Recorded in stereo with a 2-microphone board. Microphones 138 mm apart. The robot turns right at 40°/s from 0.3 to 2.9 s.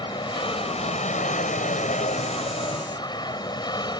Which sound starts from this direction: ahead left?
An aircraft, at 0.0 s.